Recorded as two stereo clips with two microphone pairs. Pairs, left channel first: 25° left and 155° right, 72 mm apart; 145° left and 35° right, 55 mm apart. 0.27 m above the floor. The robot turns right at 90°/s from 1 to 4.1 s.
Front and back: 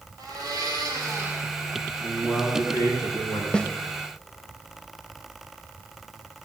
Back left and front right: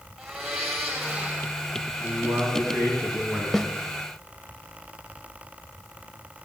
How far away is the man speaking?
About 3.5 m.